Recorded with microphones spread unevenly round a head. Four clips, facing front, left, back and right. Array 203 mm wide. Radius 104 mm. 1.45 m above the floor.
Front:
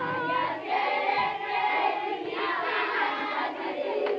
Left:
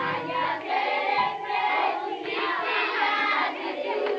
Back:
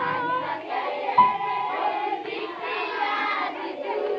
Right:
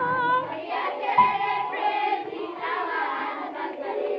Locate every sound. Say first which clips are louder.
1.2 s a piano: right 5 dB, back 8 dB; 150° right